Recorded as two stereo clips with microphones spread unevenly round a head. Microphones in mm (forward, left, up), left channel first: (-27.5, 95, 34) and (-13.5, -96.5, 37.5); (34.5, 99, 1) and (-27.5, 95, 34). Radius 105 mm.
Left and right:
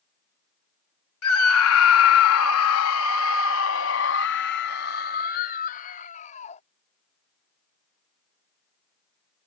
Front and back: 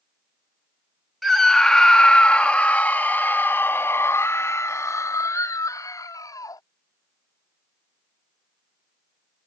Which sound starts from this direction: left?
A scream, at 1.2 s.